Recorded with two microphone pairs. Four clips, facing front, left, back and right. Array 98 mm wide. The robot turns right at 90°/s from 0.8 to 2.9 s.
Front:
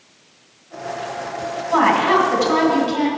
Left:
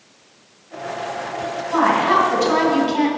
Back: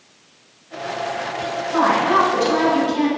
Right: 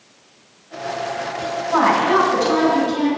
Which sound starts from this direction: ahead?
A woman speaking, at 1.7 s.